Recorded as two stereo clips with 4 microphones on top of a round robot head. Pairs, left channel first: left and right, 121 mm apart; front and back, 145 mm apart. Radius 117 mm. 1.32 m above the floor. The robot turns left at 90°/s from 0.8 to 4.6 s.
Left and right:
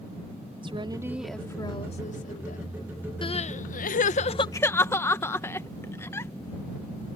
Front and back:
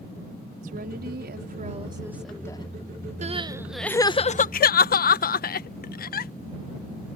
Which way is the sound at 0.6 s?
140° right.